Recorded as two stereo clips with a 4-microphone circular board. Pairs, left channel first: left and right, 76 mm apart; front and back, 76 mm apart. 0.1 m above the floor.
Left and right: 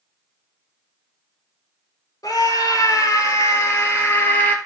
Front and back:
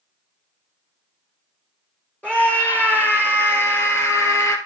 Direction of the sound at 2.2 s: 70° left.